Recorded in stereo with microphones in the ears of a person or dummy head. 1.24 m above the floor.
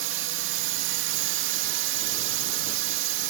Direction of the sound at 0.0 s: 65° right (ahead or behind).